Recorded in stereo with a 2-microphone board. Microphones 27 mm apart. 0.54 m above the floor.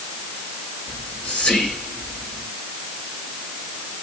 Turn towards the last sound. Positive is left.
turn(degrees=55)  # may be behind; listen again after turning